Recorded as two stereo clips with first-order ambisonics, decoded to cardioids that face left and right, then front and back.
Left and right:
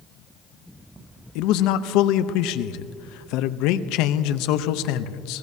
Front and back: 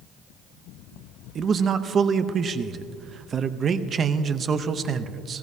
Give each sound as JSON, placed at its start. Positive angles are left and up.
{"t": 1.4, "sound": "a man speaking", "azimuth_deg": 115, "distance_m": 0.6}